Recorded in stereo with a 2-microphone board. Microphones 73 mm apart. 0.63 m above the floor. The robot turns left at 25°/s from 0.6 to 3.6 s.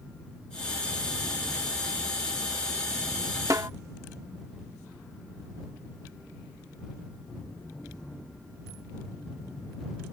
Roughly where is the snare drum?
Right.